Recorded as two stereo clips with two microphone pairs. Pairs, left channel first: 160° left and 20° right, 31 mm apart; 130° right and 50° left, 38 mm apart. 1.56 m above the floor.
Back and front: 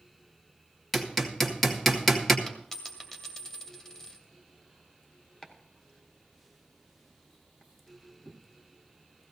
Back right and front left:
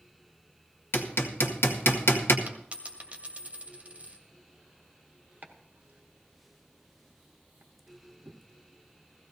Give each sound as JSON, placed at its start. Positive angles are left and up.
{"t": 0.9, "sound": "hammering", "azimuth_deg": -120, "distance_m": 1.7}
{"t": 2.5, "sound": "a dropped coin", "azimuth_deg": 90, "distance_m": 2.0}
{"t": 5.4, "sound": "chopping", "azimuth_deg": 95, "distance_m": 1.3}